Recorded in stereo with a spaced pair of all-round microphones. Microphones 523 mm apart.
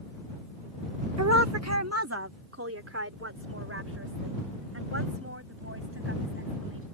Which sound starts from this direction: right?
A woman speaking, at 1.2 s.